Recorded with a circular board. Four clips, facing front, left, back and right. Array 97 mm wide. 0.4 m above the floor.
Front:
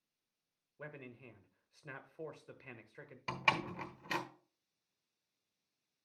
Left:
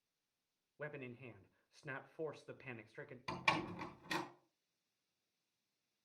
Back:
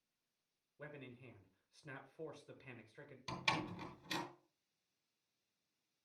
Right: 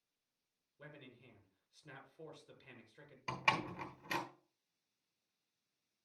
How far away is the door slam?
About 1.1 m.